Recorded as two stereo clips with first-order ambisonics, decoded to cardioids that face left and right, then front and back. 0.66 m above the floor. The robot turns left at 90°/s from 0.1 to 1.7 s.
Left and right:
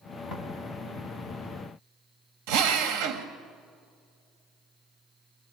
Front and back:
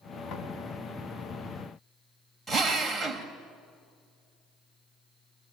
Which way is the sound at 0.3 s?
45° left.